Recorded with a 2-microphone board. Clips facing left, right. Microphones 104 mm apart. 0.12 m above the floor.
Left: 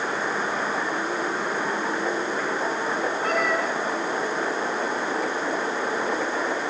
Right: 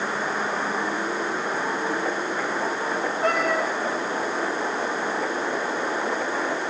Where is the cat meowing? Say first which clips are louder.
Right 3 dB; 80° right, 5 m.